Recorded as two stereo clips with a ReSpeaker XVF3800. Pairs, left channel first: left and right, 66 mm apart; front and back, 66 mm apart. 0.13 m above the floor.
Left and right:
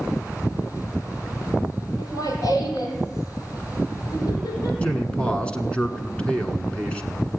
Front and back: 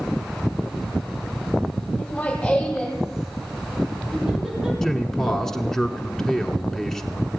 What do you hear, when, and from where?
2.0 s laughter: 70° left, 4.5 m; by 4.7 s 100° left, 5.5 m
4.8 s a man speaking: 65° left, 1.3 m